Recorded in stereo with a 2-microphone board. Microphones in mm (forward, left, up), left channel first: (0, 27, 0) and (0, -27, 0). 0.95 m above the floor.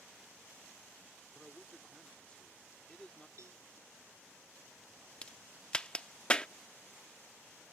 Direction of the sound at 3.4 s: 70° right (ahead or behind).